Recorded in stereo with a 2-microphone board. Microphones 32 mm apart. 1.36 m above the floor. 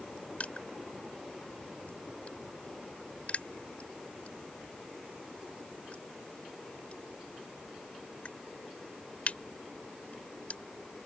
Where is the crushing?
40° left (ahead or behind).